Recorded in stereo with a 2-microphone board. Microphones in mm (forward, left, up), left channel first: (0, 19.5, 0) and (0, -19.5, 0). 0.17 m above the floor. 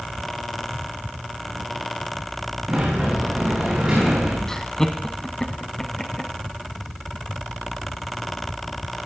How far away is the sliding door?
About 9 m.